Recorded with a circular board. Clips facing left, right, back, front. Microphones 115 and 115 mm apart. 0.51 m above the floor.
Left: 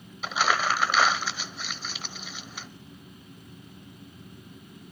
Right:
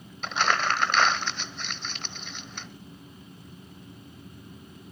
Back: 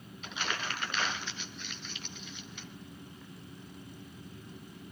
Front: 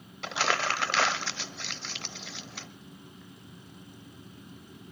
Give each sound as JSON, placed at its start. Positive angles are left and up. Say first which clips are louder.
{"t": 0.2, "sound": "crumpling", "louder": "even, front 9 dB", "azimuth_deg": 5, "distance_m": 0.8}